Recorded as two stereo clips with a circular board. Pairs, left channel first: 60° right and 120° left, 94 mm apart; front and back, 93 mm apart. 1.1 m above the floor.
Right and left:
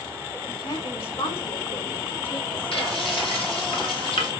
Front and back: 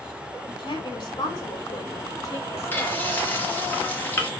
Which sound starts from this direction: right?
Frying, at 2.7 s.